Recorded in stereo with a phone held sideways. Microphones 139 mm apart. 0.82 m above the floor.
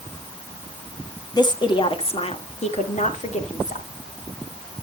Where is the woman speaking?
30° left (ahead or behind), 1.6 m; by 3.9 s 65° left (ahead or behind), 2.5 m.